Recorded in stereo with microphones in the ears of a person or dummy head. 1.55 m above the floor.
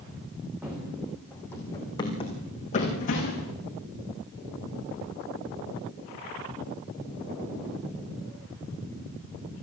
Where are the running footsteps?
5° right (ahead or behind), 4 m; by 3.5 s 50° left (ahead or behind), 4.5 m.